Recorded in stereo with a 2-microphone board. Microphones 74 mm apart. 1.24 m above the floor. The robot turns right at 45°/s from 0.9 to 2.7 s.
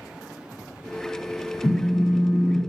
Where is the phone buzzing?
40° left, 1.9 m; by 2.6 s 85° left, 1.9 m.